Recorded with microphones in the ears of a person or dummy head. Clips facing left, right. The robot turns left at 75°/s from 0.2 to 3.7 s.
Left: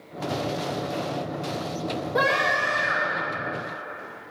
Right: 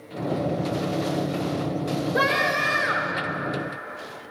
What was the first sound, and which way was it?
A scream, 10° right.